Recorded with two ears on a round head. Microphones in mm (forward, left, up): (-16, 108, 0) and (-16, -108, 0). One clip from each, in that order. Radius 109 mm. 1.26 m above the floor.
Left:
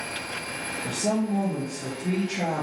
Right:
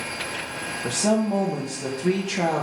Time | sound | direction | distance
0.8 | a woman speaking | 60° right (ahead or behind) | 1.5 m